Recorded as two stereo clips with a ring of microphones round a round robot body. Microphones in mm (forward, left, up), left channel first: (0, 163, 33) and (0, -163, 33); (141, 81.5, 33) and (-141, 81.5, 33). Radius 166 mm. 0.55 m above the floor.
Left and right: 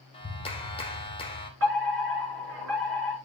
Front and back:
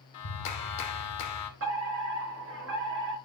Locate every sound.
0.1 s a clap: 15° left, 1.5 m
1.6 s a fire alarm: 135° right, 5.5 m